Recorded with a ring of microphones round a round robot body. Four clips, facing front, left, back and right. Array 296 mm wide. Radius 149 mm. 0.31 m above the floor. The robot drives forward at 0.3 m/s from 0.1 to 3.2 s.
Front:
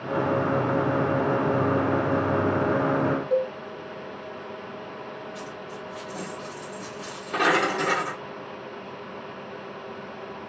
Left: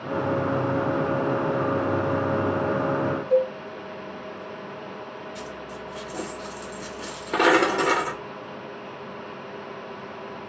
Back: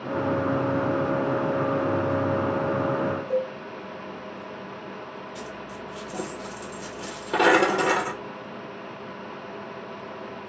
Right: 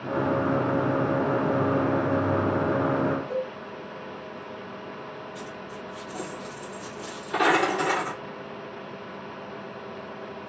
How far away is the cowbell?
About 1.4 m.